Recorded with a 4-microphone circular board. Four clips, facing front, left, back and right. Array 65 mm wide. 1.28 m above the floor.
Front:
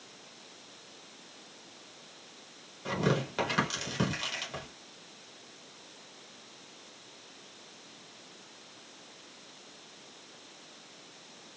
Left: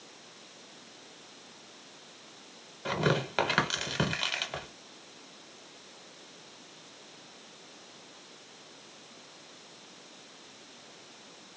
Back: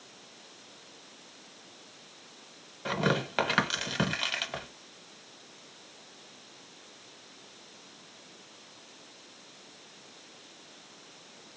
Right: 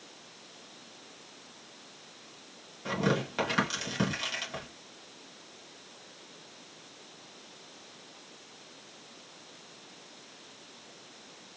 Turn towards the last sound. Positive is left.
turn(degrees=140)